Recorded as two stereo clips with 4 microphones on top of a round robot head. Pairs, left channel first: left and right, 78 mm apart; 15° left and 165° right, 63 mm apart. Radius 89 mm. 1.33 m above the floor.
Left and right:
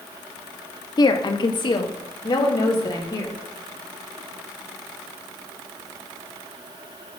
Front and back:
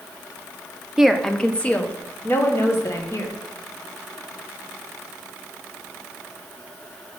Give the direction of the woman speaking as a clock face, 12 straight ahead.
8 o'clock.